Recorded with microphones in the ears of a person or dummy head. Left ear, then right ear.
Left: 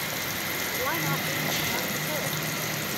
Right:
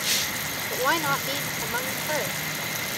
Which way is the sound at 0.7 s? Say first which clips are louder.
Right 7 dB; 75° right (ahead or behind).